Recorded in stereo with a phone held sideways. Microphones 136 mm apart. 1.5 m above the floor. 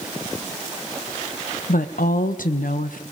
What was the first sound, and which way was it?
A woman speaking, 85° left.